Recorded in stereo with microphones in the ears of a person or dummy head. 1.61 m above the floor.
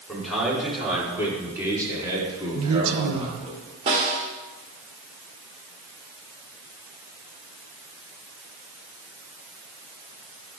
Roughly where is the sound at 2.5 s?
Right.